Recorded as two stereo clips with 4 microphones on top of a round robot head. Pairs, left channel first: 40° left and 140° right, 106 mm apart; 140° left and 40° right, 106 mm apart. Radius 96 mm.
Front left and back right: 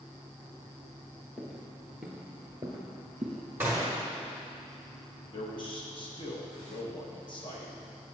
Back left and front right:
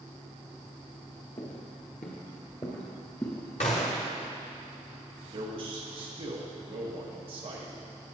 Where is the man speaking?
5° right, 1.2 m.